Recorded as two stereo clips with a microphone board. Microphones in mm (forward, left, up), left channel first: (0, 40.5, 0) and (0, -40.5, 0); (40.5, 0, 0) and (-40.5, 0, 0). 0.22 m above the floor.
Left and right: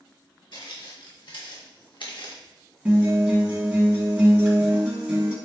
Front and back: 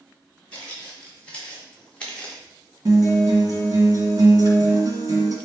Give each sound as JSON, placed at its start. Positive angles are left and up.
{"t": 0.5, "sound": "footsteps", "azimuth_deg": 70, "distance_m": 3.0}
{"t": 2.9, "sound": "a guitar", "azimuth_deg": -160, "distance_m": 2.0}